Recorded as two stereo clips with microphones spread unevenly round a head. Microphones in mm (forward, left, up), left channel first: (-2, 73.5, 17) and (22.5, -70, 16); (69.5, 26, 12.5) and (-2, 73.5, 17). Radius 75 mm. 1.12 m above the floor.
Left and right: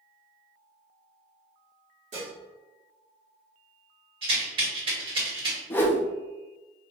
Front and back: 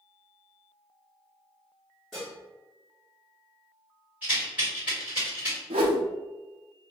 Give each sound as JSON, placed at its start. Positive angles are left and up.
{"t": 2.1, "sound": "dishes clattering", "azimuth_deg": -125, "distance_m": 1.8}
{"t": 4.2, "sound": "a rattle", "azimuth_deg": -130, "distance_m": 1.9}
{"t": 5.7, "sound": "a whoosh", "azimuth_deg": 175, "distance_m": 0.6}